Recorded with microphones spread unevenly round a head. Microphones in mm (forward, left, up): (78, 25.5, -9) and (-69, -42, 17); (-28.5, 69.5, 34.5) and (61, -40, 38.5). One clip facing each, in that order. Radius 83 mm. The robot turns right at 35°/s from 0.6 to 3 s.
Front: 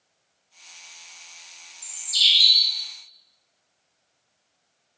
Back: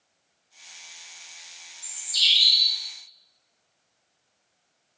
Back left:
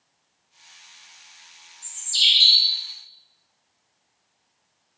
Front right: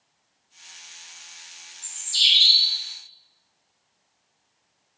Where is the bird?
30° left, 1.4 m; by 2.8 s 65° left, 1.4 m.